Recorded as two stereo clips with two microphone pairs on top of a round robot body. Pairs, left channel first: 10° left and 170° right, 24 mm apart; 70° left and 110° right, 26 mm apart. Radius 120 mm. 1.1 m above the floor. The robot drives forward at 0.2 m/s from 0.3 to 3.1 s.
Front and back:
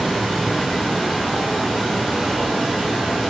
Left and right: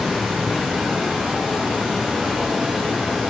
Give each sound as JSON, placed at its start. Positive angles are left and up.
{"t": 0.0, "sound": "running water", "azimuth_deg": -85, "distance_m": 1.0}